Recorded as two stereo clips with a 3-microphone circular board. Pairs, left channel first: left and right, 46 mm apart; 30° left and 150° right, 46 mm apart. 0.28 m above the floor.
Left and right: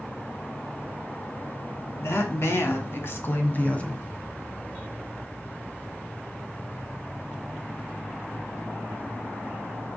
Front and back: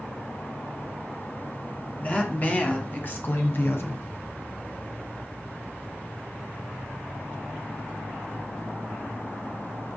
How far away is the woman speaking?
About 2.5 m.